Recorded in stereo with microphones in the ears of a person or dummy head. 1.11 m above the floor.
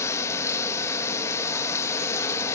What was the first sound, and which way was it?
Running water, 20° left (ahead or behind).